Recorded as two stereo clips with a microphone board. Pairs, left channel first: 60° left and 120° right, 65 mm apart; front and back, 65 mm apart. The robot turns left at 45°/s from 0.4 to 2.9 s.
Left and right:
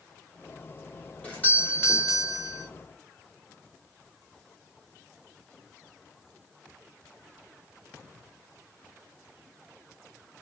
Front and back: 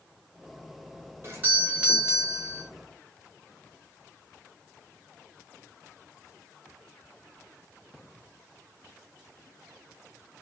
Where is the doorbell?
130° left, 1.5 m; by 2.6 s 70° left, 1.5 m.